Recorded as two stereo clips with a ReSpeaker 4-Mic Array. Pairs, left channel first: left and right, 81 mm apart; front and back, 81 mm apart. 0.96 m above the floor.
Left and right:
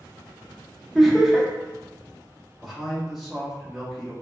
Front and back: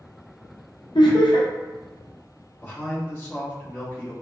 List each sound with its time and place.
0.9 s laughter: straight ahead, 0.7 m
2.6 s a man speaking: 5° right, 0.8 m